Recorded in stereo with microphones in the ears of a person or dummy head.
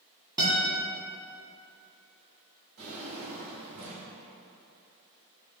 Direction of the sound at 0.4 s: 20° right (ahead or behind).